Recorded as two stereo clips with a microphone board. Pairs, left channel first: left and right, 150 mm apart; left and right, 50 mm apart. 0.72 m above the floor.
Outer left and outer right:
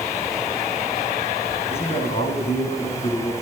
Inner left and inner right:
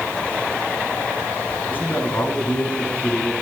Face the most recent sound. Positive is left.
turn(degrees=40)  # may be behind; listen again after turning